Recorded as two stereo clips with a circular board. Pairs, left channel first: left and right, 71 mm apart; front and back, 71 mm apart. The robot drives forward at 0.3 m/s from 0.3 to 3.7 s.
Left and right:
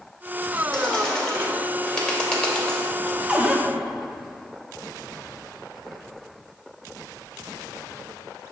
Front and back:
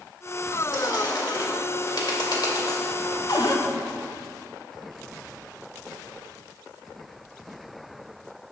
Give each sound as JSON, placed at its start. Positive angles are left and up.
{"t": 0.7, "sound": "a bird", "azimuth_deg": 5, "distance_m": 2.5}
{"t": 3.3, "sound": "a cupboard door", "azimuth_deg": -20, "distance_m": 0.8}